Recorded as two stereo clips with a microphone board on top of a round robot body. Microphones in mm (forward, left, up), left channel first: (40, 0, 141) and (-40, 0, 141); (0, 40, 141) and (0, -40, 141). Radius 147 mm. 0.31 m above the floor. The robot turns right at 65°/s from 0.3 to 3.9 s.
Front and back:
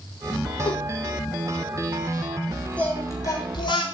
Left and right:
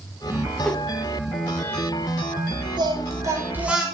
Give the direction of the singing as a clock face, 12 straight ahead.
2 o'clock.